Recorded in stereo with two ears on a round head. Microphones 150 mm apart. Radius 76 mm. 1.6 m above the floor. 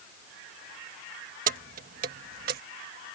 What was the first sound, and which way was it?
Keys jangling, 50° right (ahead or behind).